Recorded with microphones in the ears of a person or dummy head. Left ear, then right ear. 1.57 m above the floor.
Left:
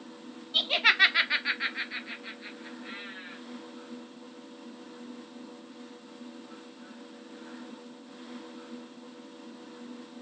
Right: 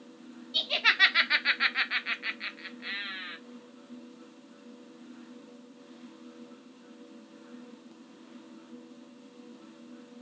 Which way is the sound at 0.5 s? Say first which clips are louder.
Left 2 dB; 30° left (ahead or behind).